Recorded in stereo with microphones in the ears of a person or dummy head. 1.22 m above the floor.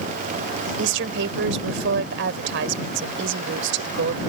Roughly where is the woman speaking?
Right.